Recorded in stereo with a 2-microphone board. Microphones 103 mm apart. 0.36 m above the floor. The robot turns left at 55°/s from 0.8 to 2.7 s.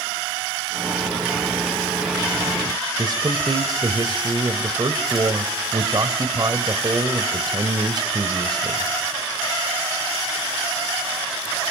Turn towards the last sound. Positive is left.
turn(degrees=-45)  # may be behind; listen again after turning